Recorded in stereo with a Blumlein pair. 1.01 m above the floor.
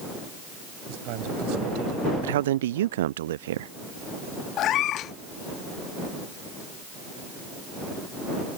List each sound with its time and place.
0.9 s a man speaking: 45° right; by 2.1 s 40° right
2.2 s a man speaking: 60° right
4.6 s a cat meowing: 35° left